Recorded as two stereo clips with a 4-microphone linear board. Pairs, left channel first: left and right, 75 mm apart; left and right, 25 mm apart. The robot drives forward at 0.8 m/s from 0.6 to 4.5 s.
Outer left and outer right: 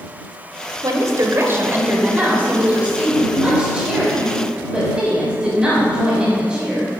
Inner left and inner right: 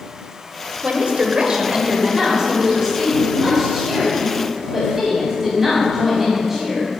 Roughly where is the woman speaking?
Right.